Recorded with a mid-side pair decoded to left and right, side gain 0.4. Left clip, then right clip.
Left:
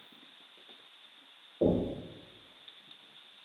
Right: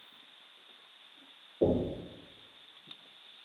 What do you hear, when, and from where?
1.6 s knocking: 30° left, 1.7 m